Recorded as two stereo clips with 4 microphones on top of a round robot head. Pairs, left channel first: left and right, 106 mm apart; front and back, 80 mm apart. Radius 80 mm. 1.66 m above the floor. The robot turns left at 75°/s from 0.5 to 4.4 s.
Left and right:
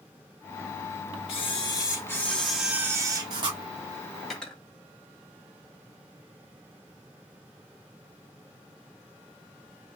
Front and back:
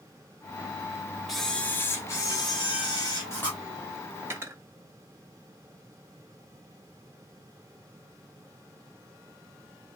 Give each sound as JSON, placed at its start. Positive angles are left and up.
{"t": 1.3, "sound": "a camera shutter", "azimuth_deg": 90, "distance_m": 1.4}
{"t": 4.2, "sound": "cutlery clinking", "azimuth_deg": 180, "distance_m": 0.7}